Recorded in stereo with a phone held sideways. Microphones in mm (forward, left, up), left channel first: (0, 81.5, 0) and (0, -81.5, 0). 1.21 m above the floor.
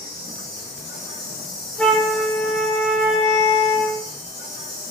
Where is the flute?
5° left (ahead or behind), 0.7 m.